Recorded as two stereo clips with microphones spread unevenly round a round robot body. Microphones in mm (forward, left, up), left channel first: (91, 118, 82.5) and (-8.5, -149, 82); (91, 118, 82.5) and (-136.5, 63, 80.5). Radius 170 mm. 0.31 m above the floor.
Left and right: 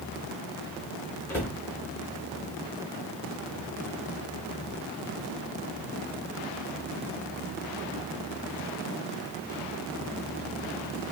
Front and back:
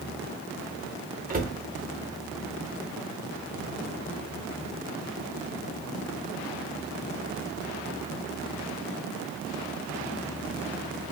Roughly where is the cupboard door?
Behind left.